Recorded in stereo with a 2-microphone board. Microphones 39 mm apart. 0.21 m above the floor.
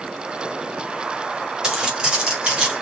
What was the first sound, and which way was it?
Footsteps, 20° right (ahead or behind).